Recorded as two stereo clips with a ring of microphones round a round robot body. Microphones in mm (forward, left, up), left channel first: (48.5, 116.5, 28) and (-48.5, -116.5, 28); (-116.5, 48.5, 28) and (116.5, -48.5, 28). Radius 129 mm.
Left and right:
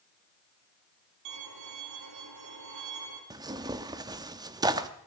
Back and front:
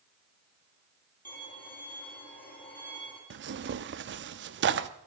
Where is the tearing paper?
45° right, 0.8 m.